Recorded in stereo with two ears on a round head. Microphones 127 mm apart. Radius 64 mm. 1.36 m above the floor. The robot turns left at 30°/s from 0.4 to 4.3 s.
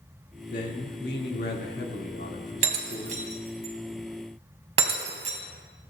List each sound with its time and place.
0.5 s a man speaking: 115° left, 2.5 m; by 3.2 s 35° left, 2.5 m
2.6 s breaking glass: 50° right (ahead or behind), 2 m